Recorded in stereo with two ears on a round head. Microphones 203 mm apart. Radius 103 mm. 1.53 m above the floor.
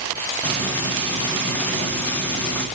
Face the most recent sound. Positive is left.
turn(degrees=10)  # may be behind; listen again after turning